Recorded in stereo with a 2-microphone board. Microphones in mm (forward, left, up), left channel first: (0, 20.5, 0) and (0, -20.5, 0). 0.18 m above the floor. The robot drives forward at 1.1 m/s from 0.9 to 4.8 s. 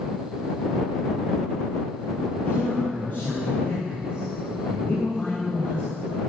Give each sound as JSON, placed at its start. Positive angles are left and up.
{"t": 2.4, "sound": "a man speaking", "side_deg": 40, "distance_m": 4.0}